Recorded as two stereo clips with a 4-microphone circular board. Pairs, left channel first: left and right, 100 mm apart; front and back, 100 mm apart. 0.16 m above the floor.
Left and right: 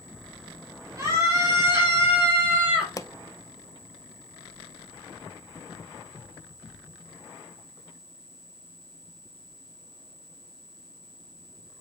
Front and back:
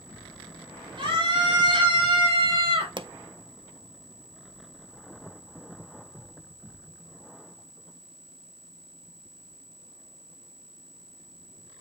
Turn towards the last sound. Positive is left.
turn(degrees=145)